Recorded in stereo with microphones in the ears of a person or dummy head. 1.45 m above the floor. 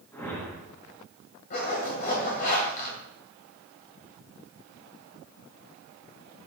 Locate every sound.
0.1 s a whoosh: 15° left (ahead or behind), 1.7 m
1.5 s a zipper: 45° left (ahead or behind), 2.5 m